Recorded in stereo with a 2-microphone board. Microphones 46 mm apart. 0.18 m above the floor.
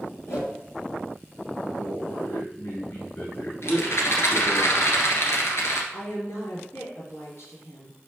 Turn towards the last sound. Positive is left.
turn(degrees=65)  # may be behind; listen again after turning